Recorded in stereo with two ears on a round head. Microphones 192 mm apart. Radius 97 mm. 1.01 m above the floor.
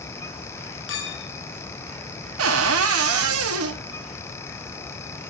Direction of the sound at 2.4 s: 75° right (ahead or behind).